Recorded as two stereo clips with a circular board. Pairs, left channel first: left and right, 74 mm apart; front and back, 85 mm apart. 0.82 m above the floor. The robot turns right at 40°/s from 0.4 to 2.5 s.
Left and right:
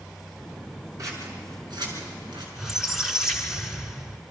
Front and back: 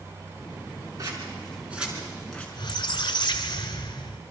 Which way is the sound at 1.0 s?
135° right.